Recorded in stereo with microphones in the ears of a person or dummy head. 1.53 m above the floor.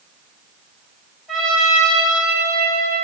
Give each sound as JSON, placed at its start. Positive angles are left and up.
{"t": 1.3, "sound": "a trumpet", "side_deg": 0, "distance_m": 6.0}